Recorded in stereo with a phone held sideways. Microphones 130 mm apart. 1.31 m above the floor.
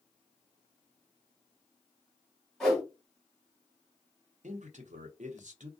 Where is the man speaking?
70° right (ahead or behind), 0.7 m.